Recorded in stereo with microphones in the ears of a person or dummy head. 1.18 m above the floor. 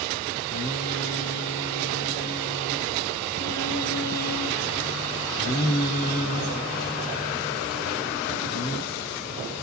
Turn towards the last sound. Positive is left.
turn(degrees=50)  # may be behind; listen again after turning